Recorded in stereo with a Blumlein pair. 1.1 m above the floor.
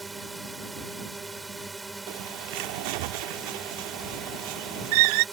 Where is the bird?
45° right.